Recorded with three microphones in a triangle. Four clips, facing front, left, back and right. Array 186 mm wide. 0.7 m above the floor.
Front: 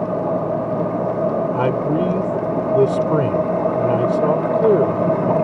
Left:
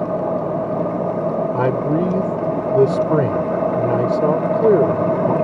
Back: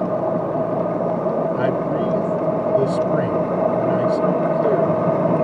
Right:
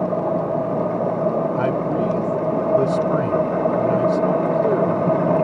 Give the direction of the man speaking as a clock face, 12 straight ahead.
10 o'clock.